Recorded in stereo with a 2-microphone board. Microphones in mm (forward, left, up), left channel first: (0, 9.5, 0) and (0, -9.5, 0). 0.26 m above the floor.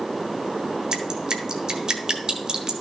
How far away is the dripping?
About 1.6 m.